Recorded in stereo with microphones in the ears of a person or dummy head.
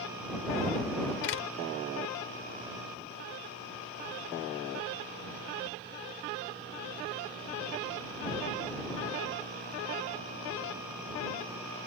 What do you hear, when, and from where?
1.2 s a door slam: 75° left (ahead or behind)